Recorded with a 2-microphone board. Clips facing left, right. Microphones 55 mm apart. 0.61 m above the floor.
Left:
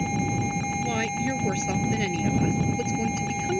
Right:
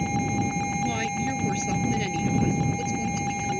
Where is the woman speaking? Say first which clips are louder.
Even; 15° left (ahead or behind); by 3.6 s 30° left (ahead or behind).